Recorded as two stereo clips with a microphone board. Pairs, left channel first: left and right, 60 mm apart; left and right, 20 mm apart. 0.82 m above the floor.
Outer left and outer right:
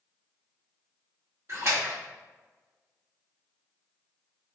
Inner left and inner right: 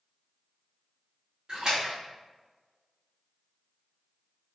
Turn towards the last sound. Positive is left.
turn(degrees=-45)  # may be behind; listen again after turning